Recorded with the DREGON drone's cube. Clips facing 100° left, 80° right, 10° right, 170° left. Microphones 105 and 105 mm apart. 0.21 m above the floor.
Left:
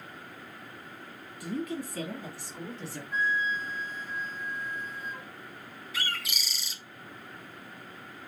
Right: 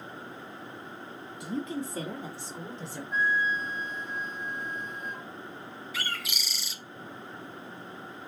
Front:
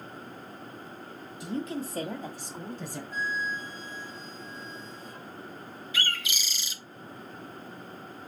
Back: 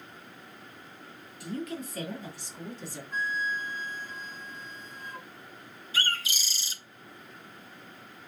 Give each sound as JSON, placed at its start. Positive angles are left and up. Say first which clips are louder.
{"t": 1.4, "sound": "a woman speaking", "louder": "even, front 2 dB", "azimuth_deg": -50, "distance_m": 1.3}
{"t": 3.1, "sound": "a flute", "louder": "right 2 dB, back 2 dB", "azimuth_deg": -175, "distance_m": 1.0}
{"t": 5.9, "sound": "a bird", "louder": "left 1 dB, back 2 dB", "azimuth_deg": -170, "distance_m": 0.6}